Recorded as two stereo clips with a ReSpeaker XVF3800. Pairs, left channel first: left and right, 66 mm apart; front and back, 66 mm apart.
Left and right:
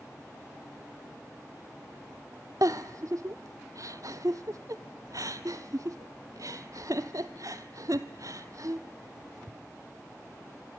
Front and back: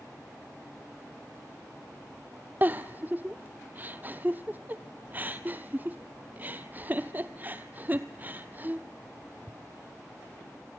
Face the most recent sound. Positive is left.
turn(degrees=-115)